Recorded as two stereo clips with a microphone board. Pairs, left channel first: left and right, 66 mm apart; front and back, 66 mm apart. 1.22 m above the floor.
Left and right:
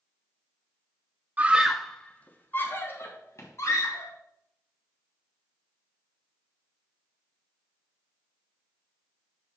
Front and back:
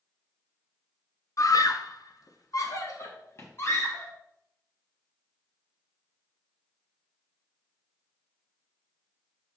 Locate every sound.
1.4 s a scream: 25° right, 0.9 m; by 4.1 s 50° left, 3 m